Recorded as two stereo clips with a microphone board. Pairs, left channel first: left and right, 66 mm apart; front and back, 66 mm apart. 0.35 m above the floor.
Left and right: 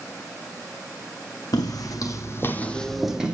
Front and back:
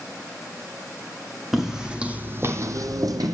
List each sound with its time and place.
1.5 s footsteps: 95° left, 1.0 m; by 3.4 s 160° right, 0.8 m